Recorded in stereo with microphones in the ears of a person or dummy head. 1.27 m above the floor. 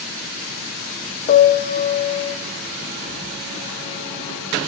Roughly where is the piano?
Left.